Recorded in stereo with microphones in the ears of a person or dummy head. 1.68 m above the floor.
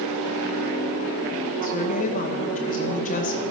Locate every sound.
1.6 s a woman speaking: 45° left (ahead or behind), 2.5 m